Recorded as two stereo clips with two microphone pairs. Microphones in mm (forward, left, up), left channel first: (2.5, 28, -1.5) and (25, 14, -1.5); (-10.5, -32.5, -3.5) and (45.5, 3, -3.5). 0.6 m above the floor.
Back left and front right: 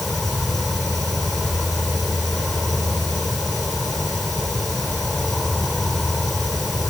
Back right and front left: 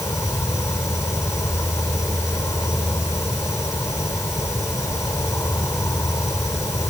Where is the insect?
135° right.